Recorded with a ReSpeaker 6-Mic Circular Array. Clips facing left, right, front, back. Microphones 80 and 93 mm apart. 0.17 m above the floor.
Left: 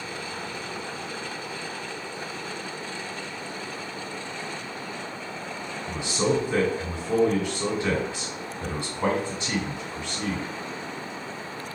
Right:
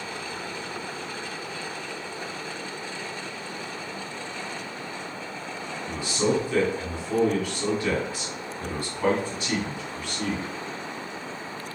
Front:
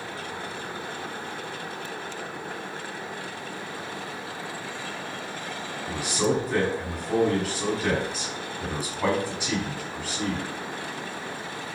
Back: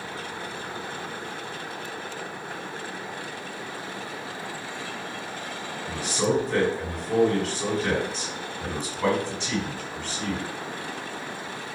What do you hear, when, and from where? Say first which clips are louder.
5.9 s a man speaking: even, even; 70° left, 1.7 m